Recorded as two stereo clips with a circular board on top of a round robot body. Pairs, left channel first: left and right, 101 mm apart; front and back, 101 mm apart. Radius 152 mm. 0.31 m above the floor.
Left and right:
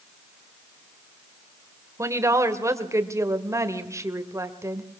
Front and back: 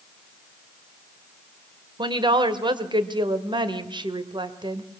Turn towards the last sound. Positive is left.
turn(degrees=-145)